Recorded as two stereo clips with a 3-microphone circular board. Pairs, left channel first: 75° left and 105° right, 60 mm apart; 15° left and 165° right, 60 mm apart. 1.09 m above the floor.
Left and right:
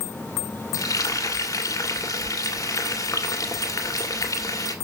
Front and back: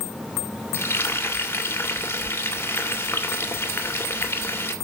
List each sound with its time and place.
0.7 s frying: 65° left, 2 m